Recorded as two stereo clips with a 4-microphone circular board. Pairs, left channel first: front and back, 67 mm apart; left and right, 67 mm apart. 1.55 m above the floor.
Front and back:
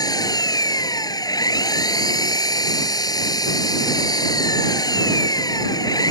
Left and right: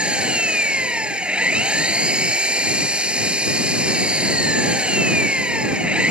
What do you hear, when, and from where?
0.0 s an engine running: 15° right